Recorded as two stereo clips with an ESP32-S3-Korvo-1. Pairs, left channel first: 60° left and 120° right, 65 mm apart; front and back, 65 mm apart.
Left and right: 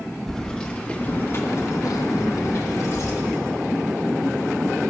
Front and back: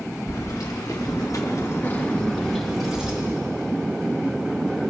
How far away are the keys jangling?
About 2.0 m.